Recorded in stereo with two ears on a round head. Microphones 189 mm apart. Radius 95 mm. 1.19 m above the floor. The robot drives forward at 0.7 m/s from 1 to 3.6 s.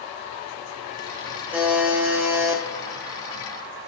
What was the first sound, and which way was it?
A buzzer, 10° right (ahead or behind).